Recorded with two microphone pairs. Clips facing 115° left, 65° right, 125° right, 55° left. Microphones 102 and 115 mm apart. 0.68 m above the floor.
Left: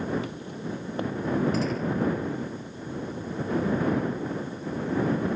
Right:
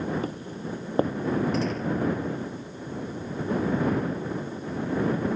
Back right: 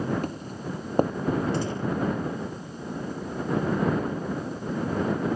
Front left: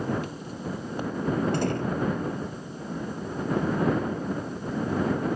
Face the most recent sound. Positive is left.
turn(degrees=25)